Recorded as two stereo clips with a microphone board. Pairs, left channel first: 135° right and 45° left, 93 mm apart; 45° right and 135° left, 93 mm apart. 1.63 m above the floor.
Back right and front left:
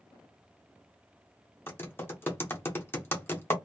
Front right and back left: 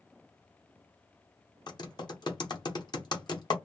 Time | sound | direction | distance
1.7 | typing on a keyboard | 75° right | 0.8 m